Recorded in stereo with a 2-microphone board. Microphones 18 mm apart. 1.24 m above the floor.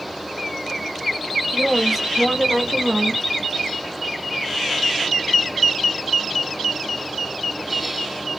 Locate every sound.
1.5 s a woman speaking: 5° left (ahead or behind), 1.8 m; by 3.3 s 70° right (ahead or behind), 1.5 m